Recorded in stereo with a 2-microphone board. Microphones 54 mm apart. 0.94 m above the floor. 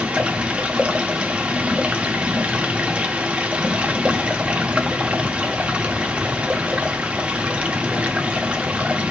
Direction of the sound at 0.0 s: 25° right (ahead or behind).